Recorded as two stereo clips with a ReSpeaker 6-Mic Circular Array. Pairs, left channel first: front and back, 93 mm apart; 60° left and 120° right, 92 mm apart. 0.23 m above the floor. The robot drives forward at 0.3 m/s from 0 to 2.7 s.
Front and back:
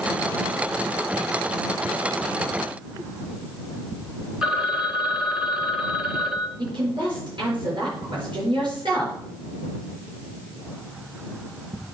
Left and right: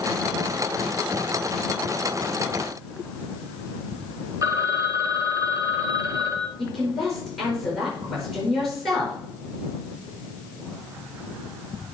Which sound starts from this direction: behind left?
A woman speaking, at 6.6 s.